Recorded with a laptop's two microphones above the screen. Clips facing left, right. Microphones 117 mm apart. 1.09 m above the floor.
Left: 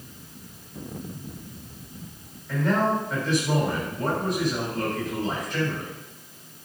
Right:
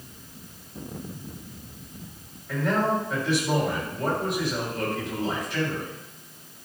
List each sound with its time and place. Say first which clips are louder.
2.5 s a man speaking: left 1 dB; 5° right (ahead or behind), 4 m